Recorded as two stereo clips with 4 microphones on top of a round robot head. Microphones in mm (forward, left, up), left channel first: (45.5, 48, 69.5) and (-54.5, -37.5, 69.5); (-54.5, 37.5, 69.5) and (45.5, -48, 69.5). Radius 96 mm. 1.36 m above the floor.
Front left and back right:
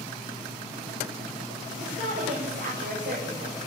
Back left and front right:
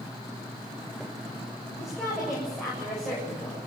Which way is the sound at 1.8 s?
125° right.